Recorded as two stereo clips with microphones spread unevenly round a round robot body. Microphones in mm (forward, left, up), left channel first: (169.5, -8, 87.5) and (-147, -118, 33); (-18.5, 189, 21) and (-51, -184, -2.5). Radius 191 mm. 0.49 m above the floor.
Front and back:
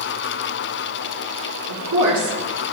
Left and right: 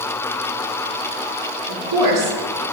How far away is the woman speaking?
About 4.5 m.